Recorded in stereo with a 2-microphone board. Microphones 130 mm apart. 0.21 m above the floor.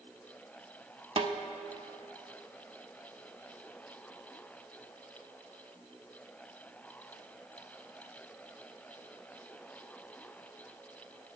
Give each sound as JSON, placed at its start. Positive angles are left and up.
{"t": 1.2, "sound": "a snare drum", "side_deg": -45, "distance_m": 0.6}